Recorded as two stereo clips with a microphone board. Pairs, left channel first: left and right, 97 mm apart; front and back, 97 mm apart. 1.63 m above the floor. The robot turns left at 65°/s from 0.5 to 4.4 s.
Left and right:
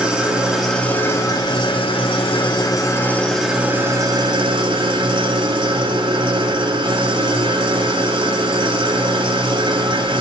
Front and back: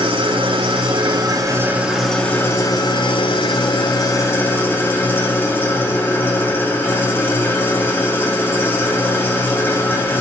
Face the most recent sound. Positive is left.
turn(degrees=-65)